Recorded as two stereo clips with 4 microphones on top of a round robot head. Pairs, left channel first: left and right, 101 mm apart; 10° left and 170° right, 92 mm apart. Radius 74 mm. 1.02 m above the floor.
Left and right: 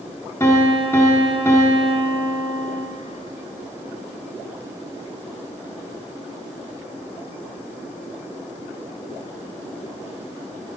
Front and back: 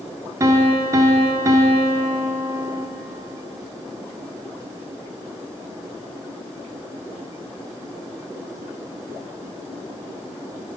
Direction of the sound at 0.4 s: 155° left.